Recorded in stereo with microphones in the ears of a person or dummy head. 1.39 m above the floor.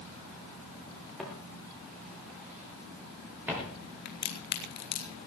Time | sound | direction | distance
1.2 | footsteps | centre (ahead or behind) | 7 m
4.0 | a crack | 55° left (ahead or behind) | 2 m